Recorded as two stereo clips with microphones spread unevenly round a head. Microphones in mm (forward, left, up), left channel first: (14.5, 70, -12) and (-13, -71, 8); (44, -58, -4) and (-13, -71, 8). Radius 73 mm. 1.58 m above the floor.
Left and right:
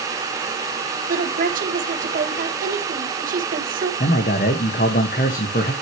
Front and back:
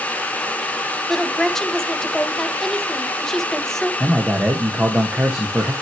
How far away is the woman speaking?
About 1.7 m.